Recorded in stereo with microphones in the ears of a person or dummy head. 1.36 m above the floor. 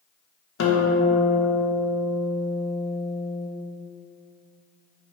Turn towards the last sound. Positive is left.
turn(degrees=65)  # may be behind; listen again after turning